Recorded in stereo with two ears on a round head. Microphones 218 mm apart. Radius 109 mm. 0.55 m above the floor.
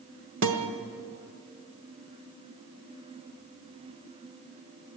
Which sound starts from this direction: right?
A guitar, at 0.4 s.